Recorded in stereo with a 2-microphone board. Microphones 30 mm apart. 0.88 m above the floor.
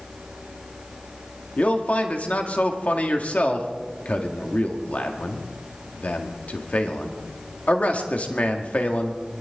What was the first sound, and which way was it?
A man speaking, 50° left (ahead or behind).